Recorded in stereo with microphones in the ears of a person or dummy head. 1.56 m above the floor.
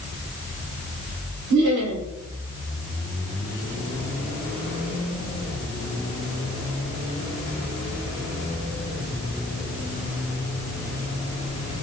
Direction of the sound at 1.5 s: 60° right (ahead or behind).